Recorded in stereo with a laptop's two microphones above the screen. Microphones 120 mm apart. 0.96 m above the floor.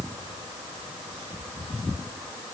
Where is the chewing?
I don't hear chewing.